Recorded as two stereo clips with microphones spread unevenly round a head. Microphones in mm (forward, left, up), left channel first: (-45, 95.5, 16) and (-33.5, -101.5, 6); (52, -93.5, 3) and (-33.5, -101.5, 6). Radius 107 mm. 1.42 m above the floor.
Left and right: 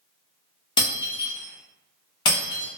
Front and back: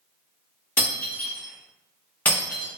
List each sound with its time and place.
0.8 s breaking glass: 60° left, 0.7 m